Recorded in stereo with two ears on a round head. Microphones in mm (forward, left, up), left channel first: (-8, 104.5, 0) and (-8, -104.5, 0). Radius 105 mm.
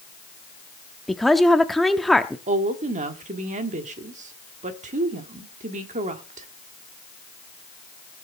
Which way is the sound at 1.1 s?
Centre (ahead or behind).